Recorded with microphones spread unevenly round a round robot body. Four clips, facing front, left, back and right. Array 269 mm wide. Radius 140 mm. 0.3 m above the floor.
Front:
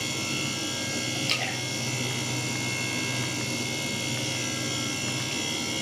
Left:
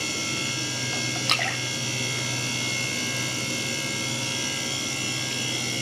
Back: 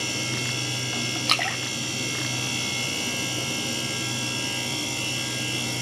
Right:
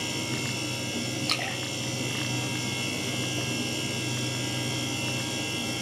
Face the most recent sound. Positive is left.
turn(degrees=145)